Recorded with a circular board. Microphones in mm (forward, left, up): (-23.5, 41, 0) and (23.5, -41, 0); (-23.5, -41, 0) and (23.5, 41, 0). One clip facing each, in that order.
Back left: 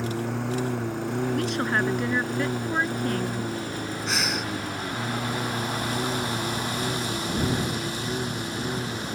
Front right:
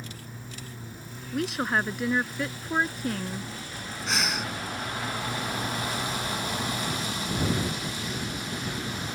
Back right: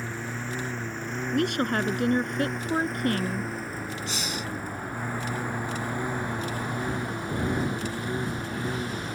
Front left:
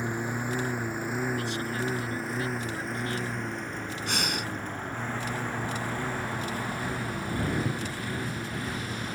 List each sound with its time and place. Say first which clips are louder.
0.0 s a lawn mower: back left 15 dB, front left 3 dB; 135° left; by 9.2 s 175° left
1.3 s a woman speaking: front right 2 dB, back right 6 dB; 150° right
4.1 s breathing: front right 1 dB, front left 1 dB; 30° left